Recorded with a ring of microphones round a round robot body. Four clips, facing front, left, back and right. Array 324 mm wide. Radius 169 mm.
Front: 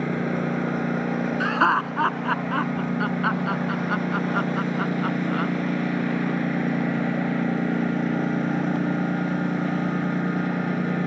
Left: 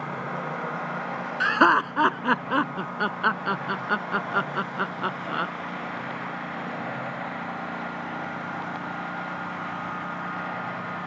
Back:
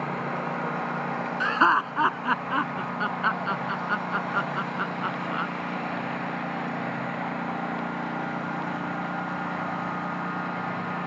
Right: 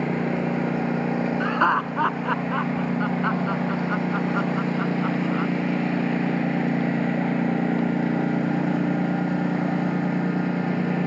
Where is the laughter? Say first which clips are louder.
Left 4 dB, back 1 dB; 90° left.